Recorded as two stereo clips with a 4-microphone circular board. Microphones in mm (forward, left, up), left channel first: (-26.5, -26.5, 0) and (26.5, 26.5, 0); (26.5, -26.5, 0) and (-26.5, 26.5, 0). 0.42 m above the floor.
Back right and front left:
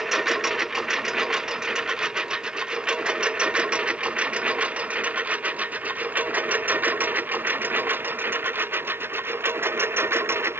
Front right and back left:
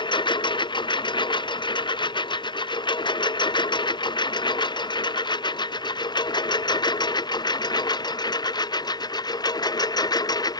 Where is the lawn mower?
40° right; by 10.6 s 15° right.